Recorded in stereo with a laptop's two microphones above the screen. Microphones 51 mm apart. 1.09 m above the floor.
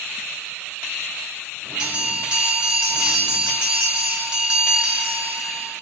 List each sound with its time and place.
1.8 s a bell: 20° right (ahead or behind), 1.9 m